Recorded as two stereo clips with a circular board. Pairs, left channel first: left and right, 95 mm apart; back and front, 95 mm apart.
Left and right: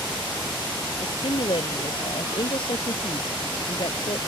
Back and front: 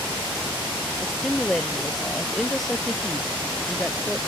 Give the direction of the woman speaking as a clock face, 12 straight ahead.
9 o'clock.